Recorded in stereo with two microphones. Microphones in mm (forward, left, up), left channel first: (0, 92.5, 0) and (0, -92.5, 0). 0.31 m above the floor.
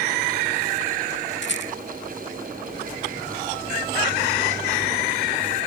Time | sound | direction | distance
1.4 | a rattle | 70° left (ahead or behind) | ?